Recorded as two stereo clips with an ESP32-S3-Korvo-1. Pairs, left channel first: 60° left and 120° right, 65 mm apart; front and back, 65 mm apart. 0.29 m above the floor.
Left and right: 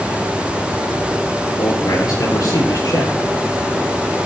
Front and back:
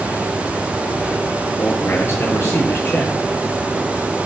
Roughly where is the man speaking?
Ahead left.